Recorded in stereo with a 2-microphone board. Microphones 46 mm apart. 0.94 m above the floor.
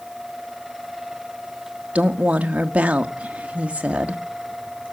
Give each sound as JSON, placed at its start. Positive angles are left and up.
{"t": 1.9, "sound": "a woman speaking", "side_deg": -30, "distance_m": 1.0}